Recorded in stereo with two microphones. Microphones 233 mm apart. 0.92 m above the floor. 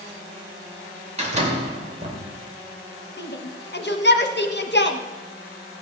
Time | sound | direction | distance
1.2 | a door slam | 30° right (ahead or behind) | 2.5 m
3.2 | a shout | 50° left (ahead or behind) | 1.2 m